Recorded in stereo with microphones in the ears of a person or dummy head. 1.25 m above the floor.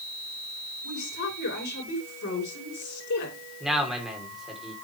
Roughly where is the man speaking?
Centre.